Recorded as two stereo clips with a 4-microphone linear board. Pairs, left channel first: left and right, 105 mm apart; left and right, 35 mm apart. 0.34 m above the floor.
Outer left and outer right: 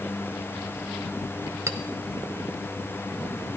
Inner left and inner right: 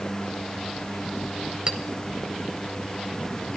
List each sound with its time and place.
1.7 s a clink: 30° right (ahead or behind), 0.7 m